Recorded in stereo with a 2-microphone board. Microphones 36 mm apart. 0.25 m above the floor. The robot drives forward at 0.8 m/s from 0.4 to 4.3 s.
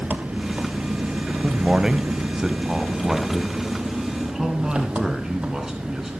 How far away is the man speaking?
About 1.1 m.